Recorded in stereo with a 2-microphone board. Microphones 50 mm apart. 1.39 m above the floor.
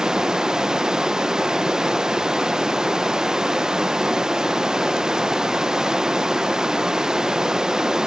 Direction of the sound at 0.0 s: 15° right (ahead or behind).